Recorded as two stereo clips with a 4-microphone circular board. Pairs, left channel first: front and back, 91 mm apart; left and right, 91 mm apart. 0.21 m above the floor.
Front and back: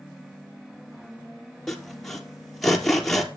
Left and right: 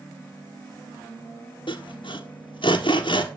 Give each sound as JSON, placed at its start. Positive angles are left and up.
{"t": 1.7, "sound": "sawing", "azimuth_deg": 90, "distance_m": 1.7}